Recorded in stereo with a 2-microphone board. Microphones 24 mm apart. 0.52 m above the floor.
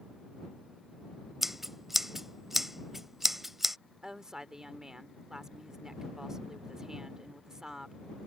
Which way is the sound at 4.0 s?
25° right (ahead or behind).